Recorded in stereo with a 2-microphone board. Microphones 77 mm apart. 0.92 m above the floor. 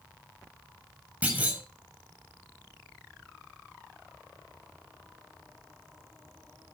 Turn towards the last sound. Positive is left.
turn(degrees=-20)  # may be behind; listen again after turning